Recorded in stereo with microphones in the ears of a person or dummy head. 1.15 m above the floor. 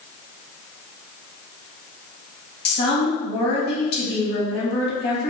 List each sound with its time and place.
2.6 s a woman speaking: 55° left (ahead or behind), 1.4 m